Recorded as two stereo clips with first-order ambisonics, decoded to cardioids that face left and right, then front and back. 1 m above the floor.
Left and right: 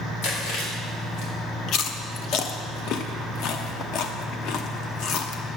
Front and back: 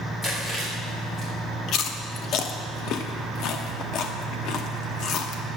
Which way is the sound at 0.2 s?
70° left.